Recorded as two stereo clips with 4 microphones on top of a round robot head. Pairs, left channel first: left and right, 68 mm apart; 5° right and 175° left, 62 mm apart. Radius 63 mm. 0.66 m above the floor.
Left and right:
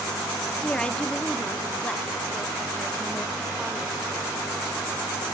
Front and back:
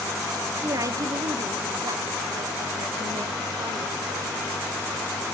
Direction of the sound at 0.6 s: 165° left.